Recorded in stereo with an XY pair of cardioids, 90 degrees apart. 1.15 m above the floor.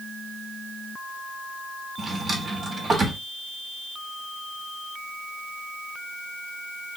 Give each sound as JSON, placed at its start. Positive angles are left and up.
{"t": 2.0, "sound": "a drawer", "azimuth_deg": -40, "distance_m": 1.2}